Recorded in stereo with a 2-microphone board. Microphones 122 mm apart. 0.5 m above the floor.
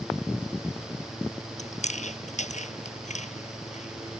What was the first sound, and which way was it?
Chewing, 75° left (ahead or behind).